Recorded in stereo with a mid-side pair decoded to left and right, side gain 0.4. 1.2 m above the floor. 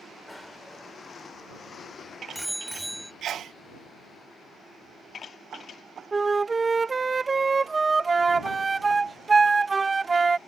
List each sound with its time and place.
0.3 s a bicycle bell: 10° left; by 3.1 s 5° right
3.2 s a sneeze: 65° right
6.1 s a flute: 30° right